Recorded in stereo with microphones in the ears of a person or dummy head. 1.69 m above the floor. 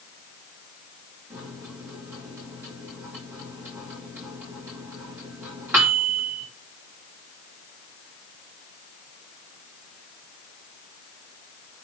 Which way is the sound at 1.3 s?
10° right (ahead or behind).